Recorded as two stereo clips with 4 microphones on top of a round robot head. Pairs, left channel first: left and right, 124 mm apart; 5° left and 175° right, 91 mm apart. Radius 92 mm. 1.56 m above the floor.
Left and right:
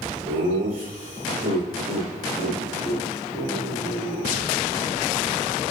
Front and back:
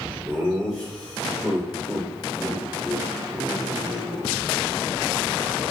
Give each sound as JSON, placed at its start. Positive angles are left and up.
{"t": 0.2, "sound": "laughter", "azimuth_deg": -90, "distance_m": 4.5}